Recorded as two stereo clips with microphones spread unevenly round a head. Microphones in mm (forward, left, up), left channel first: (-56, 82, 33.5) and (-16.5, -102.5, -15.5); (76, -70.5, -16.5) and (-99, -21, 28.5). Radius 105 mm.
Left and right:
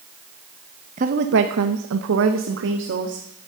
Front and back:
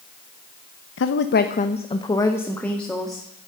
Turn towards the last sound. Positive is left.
turn(degrees=-105)